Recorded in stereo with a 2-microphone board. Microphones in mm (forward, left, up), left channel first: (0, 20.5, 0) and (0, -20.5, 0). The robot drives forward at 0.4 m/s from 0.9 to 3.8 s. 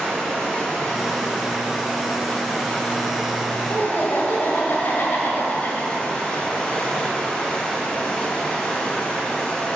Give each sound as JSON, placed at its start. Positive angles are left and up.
{"t": 0.0, "sound": "running water", "side_deg": 10, "distance_m": 2.5}
{"t": 3.7, "sound": "laughter", "side_deg": 60, "distance_m": 1.7}